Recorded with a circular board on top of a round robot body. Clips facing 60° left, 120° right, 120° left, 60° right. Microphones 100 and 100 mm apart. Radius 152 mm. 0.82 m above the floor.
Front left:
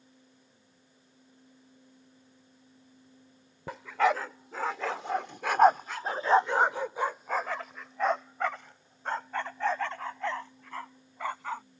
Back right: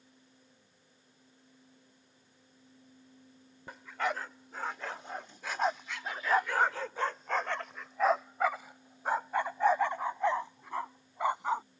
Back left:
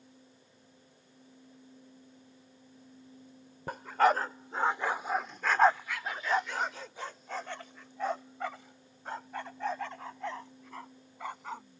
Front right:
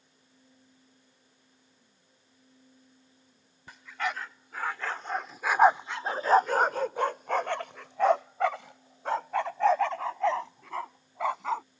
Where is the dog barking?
75° left; by 11.6 s 50° right.